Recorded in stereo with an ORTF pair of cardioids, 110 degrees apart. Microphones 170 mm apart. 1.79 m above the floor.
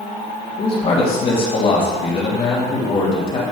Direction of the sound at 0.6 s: 35° left.